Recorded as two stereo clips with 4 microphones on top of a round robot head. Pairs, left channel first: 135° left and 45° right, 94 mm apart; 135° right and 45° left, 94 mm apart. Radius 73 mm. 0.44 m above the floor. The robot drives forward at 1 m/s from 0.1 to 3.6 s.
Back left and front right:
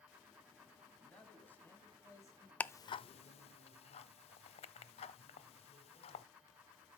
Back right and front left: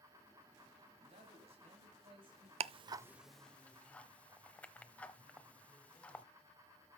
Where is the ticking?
60° left, 0.5 m; by 6.2 s 150° left, 0.9 m.